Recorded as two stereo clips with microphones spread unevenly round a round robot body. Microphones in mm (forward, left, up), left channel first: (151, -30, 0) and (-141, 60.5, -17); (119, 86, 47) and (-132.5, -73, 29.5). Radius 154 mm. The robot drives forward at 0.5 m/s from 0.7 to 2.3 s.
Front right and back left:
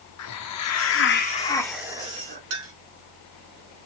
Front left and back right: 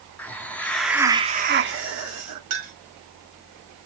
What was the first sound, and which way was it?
A hiss, 55° right.